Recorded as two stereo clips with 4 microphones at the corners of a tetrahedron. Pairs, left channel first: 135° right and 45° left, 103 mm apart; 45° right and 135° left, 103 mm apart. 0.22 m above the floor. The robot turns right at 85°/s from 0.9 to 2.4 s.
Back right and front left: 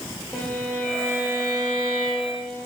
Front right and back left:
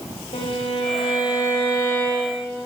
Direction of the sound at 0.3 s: 55° right.